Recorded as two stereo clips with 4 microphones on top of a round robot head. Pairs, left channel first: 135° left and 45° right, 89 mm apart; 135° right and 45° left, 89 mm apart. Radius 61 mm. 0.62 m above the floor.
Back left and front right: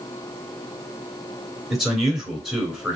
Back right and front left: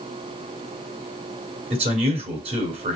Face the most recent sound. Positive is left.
turn(degrees=40)